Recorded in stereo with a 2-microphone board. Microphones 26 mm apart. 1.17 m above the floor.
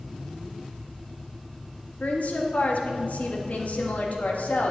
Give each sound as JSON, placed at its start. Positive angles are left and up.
{"t": 2.0, "sound": "a woman speaking", "side_deg": 80, "distance_m": 1.5}